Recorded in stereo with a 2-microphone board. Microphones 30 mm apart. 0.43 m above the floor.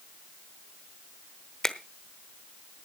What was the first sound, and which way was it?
A finger snap, 25° left (ahead or behind).